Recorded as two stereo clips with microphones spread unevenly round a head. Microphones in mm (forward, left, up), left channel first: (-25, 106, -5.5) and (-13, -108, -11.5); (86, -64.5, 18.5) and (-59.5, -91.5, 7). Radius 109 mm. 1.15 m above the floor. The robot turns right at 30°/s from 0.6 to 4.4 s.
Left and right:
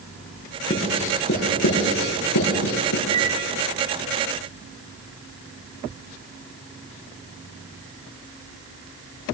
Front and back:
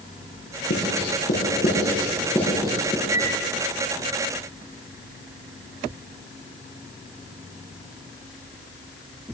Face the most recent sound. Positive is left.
turn(degrees=15)